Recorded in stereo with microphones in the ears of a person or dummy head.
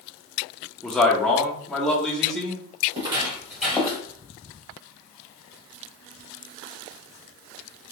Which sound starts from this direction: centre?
A man speaking, at 0.8 s.